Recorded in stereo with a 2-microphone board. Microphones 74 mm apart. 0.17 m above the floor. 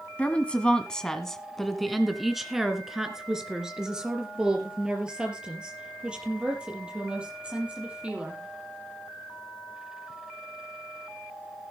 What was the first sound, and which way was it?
A woman speaking, 20° left (ahead or behind).